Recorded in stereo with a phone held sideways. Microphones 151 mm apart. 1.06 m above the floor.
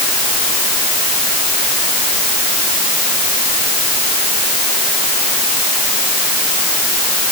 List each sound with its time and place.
Only background noise.